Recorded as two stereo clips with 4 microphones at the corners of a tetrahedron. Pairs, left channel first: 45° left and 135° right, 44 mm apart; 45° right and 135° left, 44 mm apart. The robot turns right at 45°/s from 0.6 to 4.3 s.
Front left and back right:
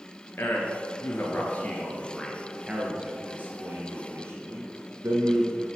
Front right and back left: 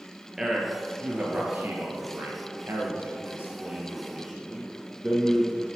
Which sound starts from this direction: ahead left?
A man speaking, at 0.4 s.